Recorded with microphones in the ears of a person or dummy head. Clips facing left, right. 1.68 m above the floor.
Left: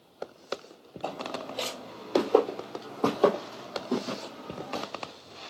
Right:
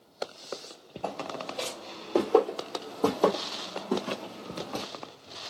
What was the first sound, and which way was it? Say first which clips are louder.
Footsteps: even; 10° left (ahead or behind).